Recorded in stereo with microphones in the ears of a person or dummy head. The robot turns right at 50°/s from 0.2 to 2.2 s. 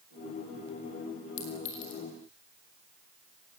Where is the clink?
70° left (ahead or behind), 5.5 m; by 2.0 s 75° left (ahead or behind), 5.5 m.